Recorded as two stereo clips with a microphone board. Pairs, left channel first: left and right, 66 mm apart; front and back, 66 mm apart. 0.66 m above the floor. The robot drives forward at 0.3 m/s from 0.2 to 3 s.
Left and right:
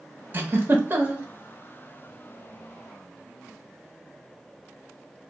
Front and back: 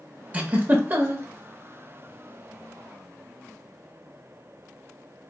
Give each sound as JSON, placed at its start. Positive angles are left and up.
{"t": 0.3, "sound": "a giggle", "azimuth_deg": -125, "distance_m": 0.7}